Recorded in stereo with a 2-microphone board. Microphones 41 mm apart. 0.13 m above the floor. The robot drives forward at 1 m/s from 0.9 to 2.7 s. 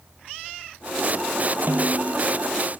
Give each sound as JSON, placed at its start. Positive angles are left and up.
{"t": 1.7, "sound": "a snare drum", "side_deg": -55, "distance_m": 0.7}